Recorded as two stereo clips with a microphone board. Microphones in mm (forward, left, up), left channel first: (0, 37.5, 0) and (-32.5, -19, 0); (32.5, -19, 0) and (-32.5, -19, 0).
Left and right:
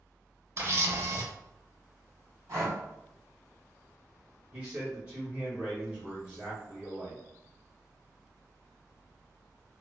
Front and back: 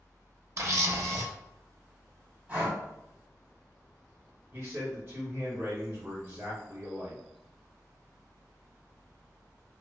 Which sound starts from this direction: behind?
A man speaking, at 4.5 s.